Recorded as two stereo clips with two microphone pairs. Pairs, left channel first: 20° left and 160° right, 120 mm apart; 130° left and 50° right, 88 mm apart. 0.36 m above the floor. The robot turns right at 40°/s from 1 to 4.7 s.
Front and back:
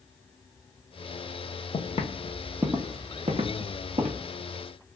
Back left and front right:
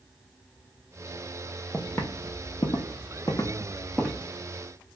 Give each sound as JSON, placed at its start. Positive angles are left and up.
{"t": 1.7, "sound": "footsteps", "azimuth_deg": 40, "distance_m": 0.7}